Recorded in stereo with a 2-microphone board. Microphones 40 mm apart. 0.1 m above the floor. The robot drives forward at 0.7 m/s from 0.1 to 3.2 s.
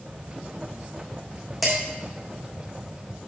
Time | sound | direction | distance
1.6 | dishes clattering | centre (ahead or behind) | 4 m